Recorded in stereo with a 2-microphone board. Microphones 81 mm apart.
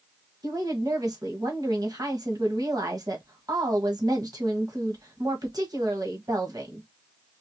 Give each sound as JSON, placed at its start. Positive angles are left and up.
{"t": 0.4, "sound": "a woman speaking", "side_deg": -55, "distance_m": 1.7}